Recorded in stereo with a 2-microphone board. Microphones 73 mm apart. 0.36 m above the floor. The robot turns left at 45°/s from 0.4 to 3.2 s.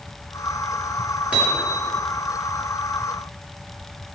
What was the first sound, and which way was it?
Hammering, 20° right (ahead or behind).